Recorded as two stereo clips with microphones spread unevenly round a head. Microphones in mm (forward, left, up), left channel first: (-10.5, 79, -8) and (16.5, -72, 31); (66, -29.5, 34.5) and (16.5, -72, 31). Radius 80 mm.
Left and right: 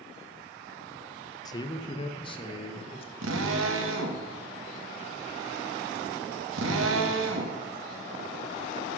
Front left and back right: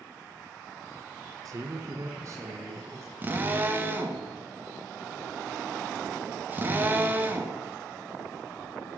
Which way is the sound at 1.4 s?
165° left.